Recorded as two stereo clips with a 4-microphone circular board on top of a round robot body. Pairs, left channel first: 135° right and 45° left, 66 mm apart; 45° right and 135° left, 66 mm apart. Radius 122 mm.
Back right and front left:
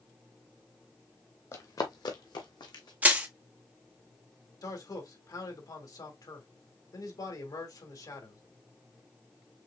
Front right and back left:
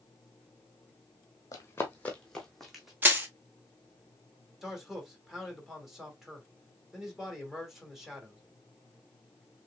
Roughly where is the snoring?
No snoring in this recording.